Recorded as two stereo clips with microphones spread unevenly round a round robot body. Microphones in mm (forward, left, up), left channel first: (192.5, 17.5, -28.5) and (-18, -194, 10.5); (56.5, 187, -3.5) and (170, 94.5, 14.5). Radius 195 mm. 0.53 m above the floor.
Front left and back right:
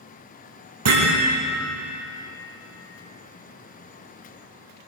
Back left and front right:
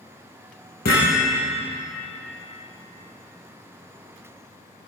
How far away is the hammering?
About 7.5 m.